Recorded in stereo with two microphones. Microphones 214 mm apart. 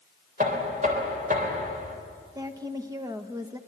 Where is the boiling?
No boiling in this recording.